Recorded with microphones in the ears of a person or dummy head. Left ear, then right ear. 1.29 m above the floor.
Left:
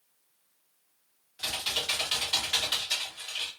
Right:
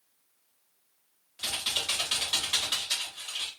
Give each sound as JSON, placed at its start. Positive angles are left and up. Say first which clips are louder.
{"t": 1.4, "sound": "typing on a keyboard", "louder": "even", "side_deg": -15, "distance_m": 1.3}